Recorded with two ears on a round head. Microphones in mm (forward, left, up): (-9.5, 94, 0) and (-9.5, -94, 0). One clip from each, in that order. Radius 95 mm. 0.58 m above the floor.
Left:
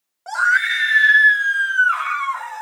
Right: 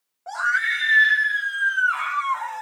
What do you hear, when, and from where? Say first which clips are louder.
0.3 s a scream: left 5 dB; 60° left (ahead or behind), 2.5 m; by 2.6 s 20° left (ahead or behind), 4 m